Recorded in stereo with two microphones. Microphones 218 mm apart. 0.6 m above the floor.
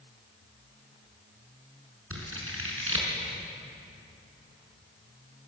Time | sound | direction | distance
2.1 | scissors | 85° right | 5 m